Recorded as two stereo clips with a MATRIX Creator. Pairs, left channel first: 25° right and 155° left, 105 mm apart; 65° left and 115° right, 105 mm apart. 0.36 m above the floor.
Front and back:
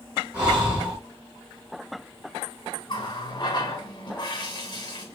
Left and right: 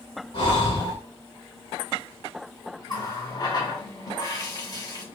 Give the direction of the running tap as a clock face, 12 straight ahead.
11 o'clock.